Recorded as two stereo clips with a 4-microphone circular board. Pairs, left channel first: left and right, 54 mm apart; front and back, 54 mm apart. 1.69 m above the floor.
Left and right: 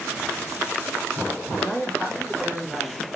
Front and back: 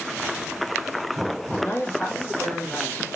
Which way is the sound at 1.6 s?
45° left.